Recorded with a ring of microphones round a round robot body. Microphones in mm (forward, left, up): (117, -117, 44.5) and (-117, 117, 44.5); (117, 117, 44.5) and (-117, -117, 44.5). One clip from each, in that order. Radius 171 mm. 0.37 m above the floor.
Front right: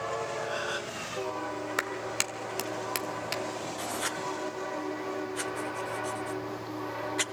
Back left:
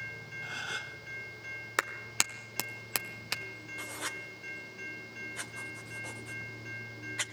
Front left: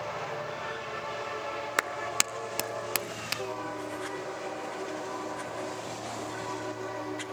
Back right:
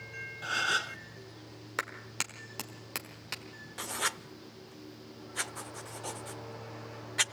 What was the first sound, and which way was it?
A gasp, 135° right.